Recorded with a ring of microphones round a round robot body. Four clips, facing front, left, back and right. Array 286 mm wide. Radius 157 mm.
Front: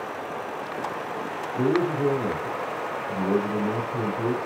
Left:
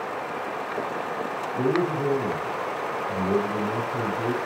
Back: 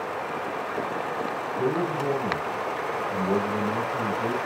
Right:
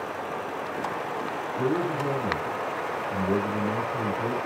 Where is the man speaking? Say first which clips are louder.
Left 3 dB, front 4 dB; 15° left, 5.5 m.